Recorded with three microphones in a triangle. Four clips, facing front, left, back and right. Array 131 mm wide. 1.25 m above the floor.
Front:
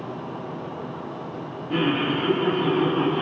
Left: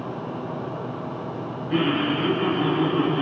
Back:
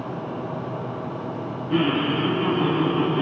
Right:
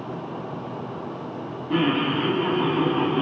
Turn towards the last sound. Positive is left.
turn(degrees=-85)